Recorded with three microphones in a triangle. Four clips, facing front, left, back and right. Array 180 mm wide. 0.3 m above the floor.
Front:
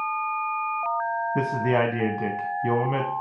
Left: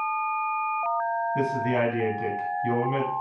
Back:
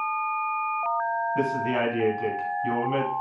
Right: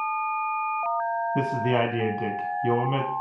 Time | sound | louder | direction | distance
1.4 | a man speaking | right 2 dB, front 5 dB | 40° right | 2.5 m